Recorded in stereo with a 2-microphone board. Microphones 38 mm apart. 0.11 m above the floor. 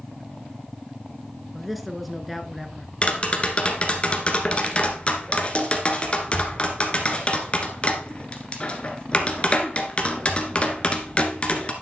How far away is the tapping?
About 1.6 m.